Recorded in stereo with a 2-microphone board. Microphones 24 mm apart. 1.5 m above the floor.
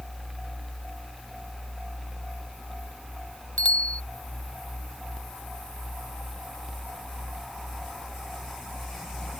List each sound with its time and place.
3.6 s a bicycle bell: 65° left (ahead or behind)